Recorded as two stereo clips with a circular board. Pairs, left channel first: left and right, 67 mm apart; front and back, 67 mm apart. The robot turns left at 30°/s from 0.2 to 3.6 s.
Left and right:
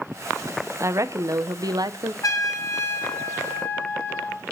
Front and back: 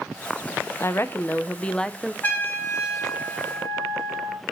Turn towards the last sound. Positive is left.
turn(degrees=15)